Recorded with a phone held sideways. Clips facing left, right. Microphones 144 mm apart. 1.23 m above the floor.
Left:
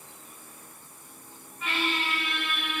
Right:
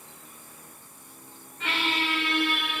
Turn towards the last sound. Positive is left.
turn(degrees=-85)